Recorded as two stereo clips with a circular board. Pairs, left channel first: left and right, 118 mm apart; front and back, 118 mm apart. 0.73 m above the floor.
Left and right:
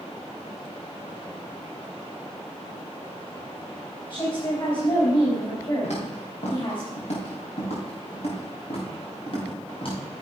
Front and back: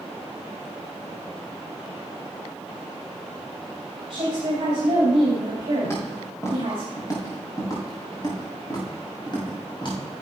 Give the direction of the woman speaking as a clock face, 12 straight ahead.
7 o'clock.